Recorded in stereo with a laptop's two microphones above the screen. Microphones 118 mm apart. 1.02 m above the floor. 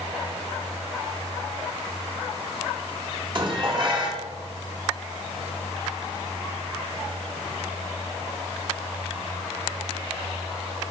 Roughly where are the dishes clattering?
Right.